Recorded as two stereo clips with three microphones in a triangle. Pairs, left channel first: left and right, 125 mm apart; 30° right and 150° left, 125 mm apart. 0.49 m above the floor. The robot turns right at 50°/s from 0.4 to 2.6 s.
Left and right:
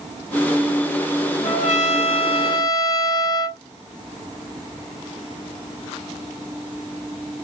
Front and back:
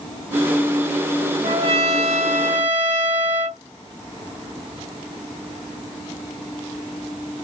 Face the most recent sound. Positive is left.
turn(degrees=145)